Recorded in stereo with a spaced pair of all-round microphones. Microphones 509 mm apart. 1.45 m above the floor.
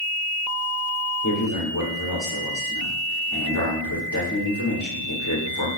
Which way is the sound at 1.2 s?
35° left (ahead or behind).